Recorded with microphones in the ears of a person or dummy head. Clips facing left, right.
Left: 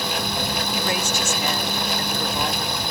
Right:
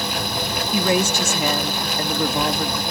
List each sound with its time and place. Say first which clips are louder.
0.7 s a woman speaking: right 10 dB; 70° right (ahead or behind)